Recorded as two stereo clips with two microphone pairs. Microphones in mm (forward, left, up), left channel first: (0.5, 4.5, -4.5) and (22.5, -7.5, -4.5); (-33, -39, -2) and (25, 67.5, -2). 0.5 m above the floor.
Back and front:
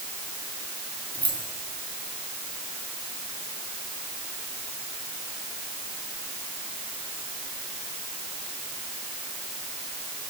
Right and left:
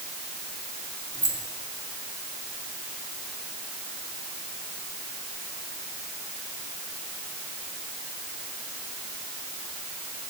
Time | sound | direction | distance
1.1 | keys jangling | 175° left | 6.5 m